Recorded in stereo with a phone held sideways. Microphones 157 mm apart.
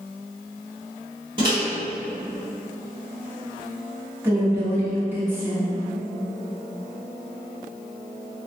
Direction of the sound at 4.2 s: 15° right (ahead or behind).